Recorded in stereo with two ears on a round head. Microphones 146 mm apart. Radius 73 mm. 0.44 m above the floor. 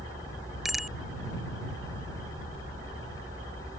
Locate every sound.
0.7 s a bicycle bell: centre (ahead or behind)